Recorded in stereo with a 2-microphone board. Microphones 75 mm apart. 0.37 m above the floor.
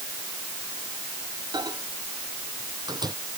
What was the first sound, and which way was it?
A microwave, 70° right (ahead or behind).